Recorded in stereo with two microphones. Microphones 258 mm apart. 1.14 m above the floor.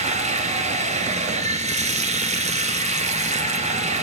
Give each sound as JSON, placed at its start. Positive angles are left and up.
{"t": 0.0, "sound": "running water", "side_deg": -25, "distance_m": 1.4}